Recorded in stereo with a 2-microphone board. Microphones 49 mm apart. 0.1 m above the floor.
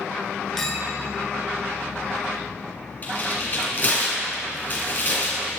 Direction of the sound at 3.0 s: 35° left (ahead or behind).